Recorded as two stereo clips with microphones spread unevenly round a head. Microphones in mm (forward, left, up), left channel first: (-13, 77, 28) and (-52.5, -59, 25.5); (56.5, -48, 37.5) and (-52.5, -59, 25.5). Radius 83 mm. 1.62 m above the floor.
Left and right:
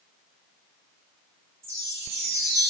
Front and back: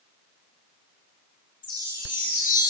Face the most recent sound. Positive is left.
turn(degrees=-30)